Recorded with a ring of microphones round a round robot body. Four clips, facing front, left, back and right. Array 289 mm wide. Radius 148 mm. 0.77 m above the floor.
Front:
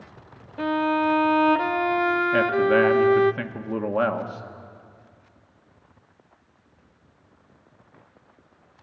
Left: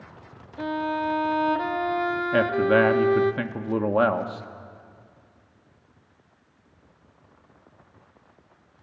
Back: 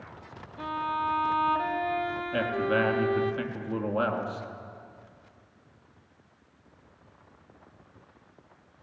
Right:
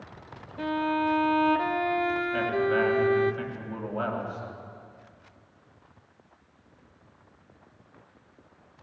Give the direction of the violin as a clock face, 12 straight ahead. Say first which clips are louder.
Even, front 8 dB; 12 o'clock.